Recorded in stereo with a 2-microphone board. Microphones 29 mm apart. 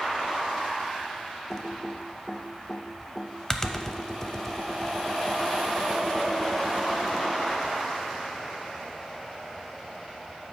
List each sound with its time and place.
1.5 s typing on a keyboard: 20° left (ahead or behind), 0.5 m